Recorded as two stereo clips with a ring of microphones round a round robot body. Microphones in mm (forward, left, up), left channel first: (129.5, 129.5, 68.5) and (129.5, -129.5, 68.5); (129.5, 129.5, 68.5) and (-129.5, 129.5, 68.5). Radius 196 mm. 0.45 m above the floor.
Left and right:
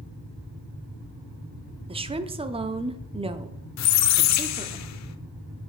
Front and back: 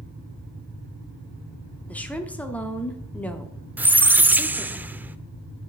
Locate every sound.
1.9 s a woman speaking: 75° right, 0.7 m
3.8 s a squeak: 95° left, 0.7 m